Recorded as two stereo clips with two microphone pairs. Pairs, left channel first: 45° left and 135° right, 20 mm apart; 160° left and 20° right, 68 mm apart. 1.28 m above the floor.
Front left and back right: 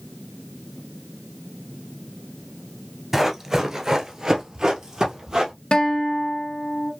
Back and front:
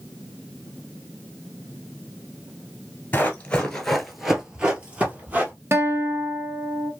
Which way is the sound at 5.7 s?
20° left.